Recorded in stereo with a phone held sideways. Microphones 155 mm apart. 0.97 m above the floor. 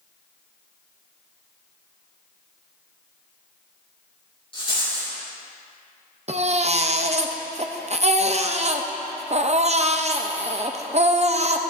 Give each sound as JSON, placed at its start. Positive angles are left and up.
{"t": 4.5, "sound": "a rattle", "side_deg": 35, "distance_m": 4.5}
{"t": 6.3, "sound": "a baby crying", "side_deg": -45, "distance_m": 0.6}